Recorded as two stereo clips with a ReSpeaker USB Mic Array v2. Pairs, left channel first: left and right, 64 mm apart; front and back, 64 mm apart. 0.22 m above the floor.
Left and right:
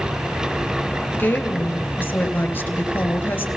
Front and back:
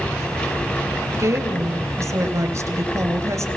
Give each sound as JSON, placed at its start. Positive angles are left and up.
{"t": 1.1, "sound": "a woman speaking", "azimuth_deg": 150, "distance_m": 3.0}